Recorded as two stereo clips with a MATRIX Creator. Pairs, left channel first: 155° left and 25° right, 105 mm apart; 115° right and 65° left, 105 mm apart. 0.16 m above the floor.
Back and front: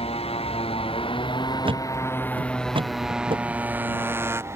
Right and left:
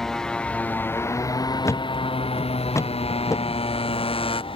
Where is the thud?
55° right.